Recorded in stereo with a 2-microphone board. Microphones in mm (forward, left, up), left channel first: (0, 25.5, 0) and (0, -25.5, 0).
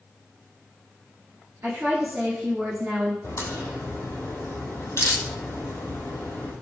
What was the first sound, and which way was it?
A woman speaking, 45° right (ahead or behind).